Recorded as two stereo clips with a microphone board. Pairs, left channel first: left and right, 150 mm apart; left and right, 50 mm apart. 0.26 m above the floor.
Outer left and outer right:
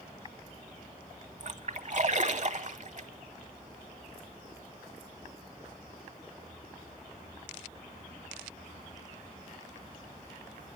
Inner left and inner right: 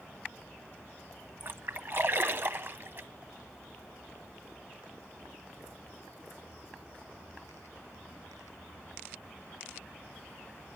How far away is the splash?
About 0.7 m.